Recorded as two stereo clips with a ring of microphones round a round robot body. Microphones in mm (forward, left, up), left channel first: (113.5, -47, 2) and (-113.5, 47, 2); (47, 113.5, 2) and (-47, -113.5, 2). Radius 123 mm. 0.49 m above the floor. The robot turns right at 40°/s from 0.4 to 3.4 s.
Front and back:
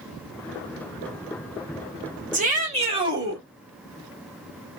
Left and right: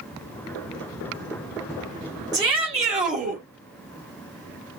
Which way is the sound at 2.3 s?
175° right.